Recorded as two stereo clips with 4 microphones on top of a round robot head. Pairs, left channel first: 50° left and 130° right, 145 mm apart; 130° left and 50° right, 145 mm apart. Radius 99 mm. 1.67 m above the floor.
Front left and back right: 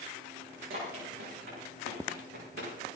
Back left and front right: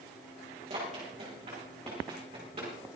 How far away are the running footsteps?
About 6.5 m.